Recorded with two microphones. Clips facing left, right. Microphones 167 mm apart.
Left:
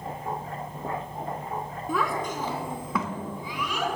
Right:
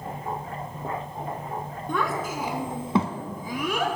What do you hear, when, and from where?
1.9 s a child speaking: 5° left (ahead or behind), 1.7 m; by 4.0 s 55° right (ahead or behind), 1.7 m